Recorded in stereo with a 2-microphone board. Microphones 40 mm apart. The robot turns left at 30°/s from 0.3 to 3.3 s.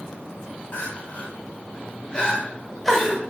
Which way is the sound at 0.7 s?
50° left (ahead or behind).